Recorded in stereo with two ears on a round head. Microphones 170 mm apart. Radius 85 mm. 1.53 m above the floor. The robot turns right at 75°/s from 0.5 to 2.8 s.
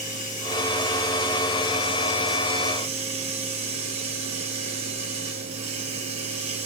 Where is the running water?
45° left, 3.5 m; by 6.7 s 145° right, 3.5 m.